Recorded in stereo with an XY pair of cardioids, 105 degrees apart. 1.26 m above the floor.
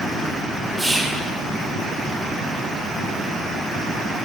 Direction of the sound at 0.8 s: 15° right.